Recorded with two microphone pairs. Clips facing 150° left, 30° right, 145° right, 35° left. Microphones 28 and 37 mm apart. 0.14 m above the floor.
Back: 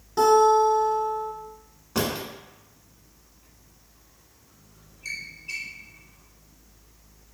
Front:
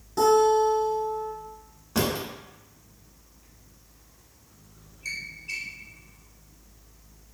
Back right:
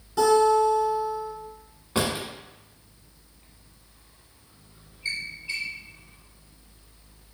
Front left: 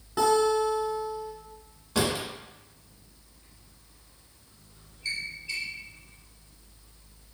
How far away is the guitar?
About 1.1 m.